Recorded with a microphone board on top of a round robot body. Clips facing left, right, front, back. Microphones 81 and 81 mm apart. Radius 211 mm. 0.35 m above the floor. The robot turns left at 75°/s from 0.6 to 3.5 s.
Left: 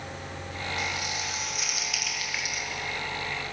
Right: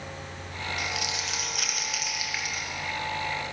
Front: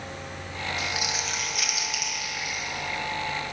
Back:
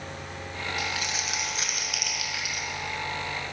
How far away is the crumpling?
About 2 m.